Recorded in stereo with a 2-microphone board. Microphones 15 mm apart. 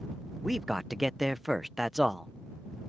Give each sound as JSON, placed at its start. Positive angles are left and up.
{"t": 0.4, "sound": "a man speaking", "side_deg": -5}